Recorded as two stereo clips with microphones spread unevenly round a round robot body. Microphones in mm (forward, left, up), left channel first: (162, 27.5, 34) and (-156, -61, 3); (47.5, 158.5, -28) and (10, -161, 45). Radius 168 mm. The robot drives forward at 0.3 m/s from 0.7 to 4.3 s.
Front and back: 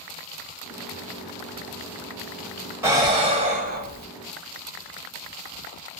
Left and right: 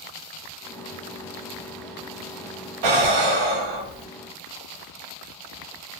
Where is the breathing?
85° right, 0.9 m; by 4.1 s 110° right, 1.0 m.